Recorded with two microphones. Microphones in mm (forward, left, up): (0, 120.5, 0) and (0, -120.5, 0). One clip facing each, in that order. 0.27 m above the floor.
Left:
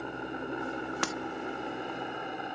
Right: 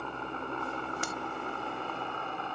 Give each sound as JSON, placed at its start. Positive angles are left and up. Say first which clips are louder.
{"t": 0.0, "sound": "a helicopter", "louder": "left 3 dB", "side_deg": 15}
{"t": 1.0, "sound": "breaking glass", "louder": "left 4 dB", "side_deg": 75}